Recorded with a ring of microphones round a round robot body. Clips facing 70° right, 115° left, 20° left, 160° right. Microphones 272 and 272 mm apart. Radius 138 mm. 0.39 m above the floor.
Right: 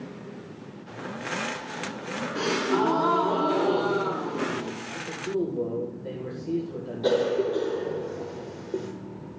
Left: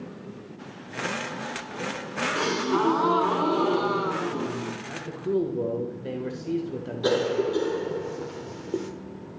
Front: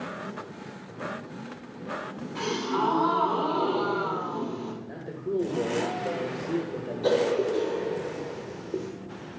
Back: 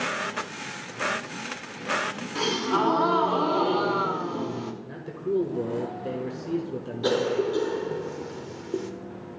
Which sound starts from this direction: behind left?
A man speaking, at 4.8 s.